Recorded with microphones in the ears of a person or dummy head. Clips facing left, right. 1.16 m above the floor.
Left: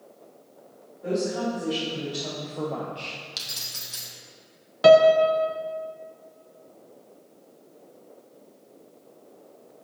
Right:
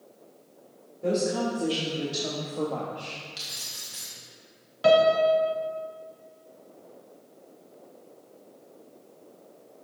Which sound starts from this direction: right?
A woman speaking, at 1.0 s.